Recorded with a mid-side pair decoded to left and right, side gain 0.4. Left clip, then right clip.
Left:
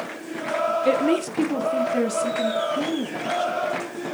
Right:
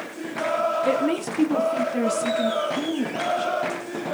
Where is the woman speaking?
30° left, 0.6 m; by 3.5 s straight ahead, 2.5 m.